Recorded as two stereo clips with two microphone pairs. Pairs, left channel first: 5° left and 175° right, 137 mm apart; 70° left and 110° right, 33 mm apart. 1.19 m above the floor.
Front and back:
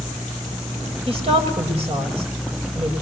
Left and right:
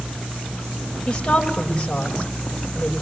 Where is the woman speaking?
140° left, 7.5 m.